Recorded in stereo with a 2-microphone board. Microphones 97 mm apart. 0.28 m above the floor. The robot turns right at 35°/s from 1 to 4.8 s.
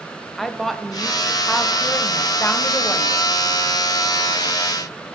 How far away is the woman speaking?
About 1.0 m.